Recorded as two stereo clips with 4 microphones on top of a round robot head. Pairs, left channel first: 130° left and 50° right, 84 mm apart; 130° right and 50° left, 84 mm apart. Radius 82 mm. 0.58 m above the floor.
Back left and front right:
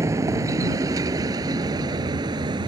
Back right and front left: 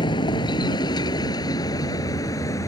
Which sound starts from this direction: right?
A vehicle, at 0.0 s.